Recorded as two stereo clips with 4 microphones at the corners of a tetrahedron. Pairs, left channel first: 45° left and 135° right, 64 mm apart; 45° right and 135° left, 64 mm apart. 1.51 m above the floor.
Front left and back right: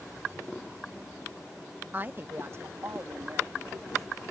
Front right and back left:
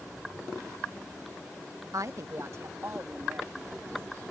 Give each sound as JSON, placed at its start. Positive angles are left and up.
{"t": 1.9, "sound": "a woman speaking", "azimuth_deg": 165}